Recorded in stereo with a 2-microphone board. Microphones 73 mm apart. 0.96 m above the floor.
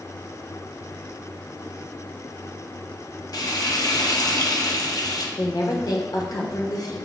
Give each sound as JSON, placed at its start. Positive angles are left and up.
{"t": 3.3, "sound": "frying", "side_deg": 60, "distance_m": 0.5}
{"t": 5.4, "sound": "a woman speaking", "side_deg": 65, "distance_m": 0.8}